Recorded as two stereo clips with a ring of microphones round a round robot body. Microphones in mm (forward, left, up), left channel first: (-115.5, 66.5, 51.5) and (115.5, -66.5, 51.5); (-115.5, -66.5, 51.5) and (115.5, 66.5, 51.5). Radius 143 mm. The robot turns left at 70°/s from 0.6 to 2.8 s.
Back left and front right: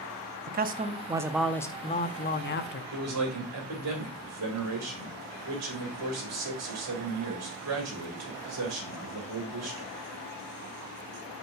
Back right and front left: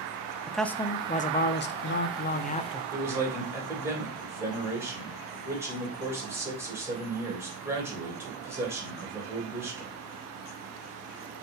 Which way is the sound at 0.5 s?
65° right.